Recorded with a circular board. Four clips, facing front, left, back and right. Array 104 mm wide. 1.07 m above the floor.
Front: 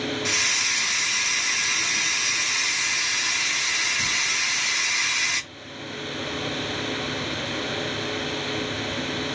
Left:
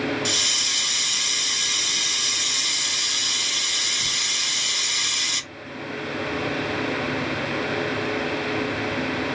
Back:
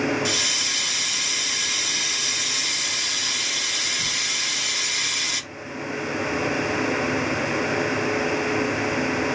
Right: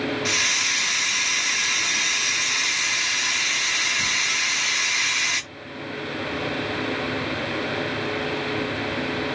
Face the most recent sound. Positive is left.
turn(degrees=-65)